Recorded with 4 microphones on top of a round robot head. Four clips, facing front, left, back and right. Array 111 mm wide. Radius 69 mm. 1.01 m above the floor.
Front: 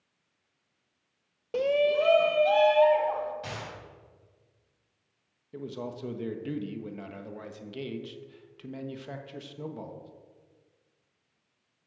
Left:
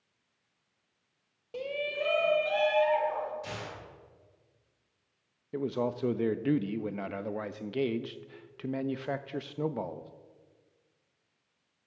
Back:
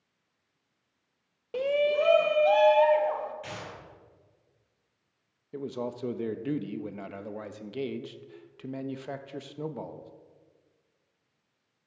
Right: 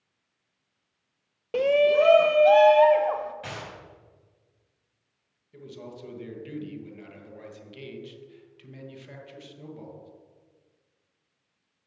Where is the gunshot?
65° right, 6.5 m.